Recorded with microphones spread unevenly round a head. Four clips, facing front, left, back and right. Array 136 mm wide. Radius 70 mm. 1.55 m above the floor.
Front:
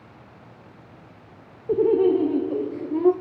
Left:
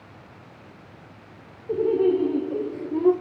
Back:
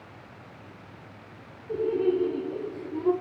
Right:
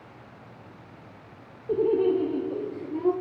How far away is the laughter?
About 1.3 m.